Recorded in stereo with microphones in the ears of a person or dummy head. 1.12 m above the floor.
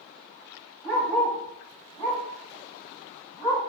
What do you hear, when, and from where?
0.8 s a dog barking: 5° left (ahead or behind), 2.5 m; by 3.6 s centre (ahead or behind), 4.5 m